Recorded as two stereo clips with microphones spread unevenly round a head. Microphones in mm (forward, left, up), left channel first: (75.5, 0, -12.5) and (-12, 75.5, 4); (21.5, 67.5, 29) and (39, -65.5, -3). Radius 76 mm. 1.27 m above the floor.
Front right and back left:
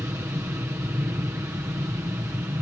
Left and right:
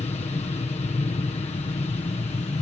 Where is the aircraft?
80° left.